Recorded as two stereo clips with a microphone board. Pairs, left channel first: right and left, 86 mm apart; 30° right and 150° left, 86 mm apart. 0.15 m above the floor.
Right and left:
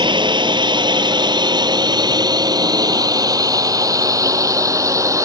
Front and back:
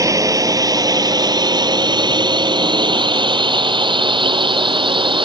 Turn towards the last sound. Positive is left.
turn(degrees=140)